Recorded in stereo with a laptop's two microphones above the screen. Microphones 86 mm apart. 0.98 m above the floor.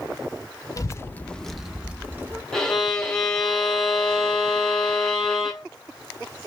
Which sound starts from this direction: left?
A child speaking, at 0.8 s.